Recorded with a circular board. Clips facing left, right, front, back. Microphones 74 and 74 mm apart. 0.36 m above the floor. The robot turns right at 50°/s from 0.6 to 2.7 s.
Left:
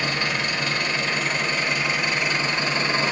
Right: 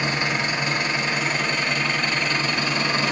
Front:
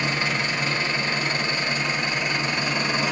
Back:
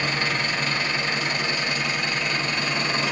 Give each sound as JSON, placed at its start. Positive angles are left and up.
{"t": 0.0, "sound": "an engine running", "azimuth_deg": -45, "distance_m": 1.1}